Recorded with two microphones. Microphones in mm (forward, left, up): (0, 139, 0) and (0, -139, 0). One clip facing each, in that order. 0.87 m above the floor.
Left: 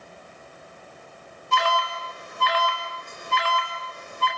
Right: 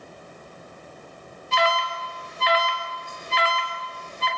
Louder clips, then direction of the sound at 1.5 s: Right 2 dB; 60° left (ahead or behind).